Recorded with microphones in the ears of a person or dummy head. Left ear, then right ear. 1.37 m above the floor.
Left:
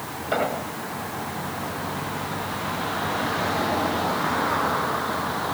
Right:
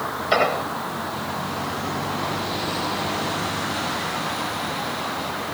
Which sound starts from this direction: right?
An explosion, at 0.3 s.